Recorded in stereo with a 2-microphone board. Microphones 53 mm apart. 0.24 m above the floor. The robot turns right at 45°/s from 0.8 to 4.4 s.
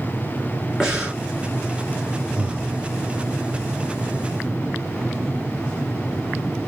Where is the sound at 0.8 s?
10° right (ahead or behind), 2 m; by 1.2 s 25° right (ahead or behind), 2 m.